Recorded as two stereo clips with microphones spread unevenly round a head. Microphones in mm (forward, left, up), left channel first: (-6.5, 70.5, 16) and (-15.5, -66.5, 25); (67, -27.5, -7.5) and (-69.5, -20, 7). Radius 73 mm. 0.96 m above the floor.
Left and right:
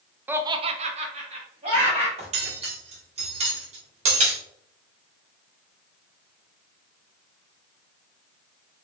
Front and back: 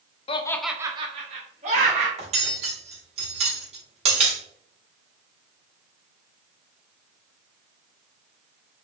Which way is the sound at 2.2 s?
140° right.